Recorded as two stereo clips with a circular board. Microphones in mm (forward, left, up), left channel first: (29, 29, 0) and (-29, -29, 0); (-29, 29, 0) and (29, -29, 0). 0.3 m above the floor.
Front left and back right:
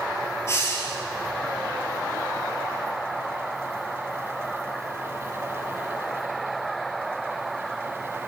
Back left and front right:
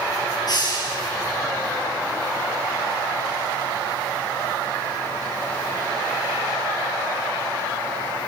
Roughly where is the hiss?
Left.